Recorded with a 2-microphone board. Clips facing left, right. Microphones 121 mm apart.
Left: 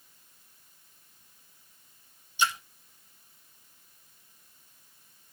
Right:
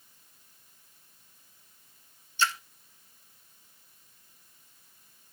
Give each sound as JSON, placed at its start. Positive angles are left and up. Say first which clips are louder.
{"t": 2.4, "sound": "a splash", "louder": "left 1 dB", "side_deg": 15, "distance_m": 1.1}